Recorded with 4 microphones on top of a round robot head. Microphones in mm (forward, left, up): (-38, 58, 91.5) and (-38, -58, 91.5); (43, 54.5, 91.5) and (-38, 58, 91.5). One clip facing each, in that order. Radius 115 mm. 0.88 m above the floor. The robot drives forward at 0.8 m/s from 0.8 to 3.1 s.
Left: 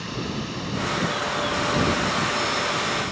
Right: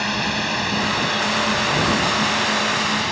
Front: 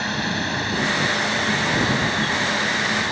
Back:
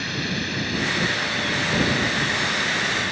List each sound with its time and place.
0.0 s a drone: 65° right; by 3.1 s 70° right